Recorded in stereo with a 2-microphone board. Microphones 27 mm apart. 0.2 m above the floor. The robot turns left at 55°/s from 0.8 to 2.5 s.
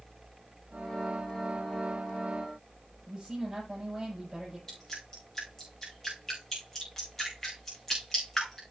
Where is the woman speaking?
20° right (ahead or behind), 7 m.